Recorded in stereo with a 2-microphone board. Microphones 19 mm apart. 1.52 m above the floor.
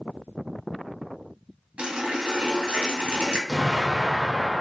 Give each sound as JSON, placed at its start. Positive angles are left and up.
{"t": 1.8, "sound": "a running tap", "side_deg": -70, "distance_m": 1.6}
{"t": 3.5, "sound": "an explosion", "side_deg": -10, "distance_m": 1.7}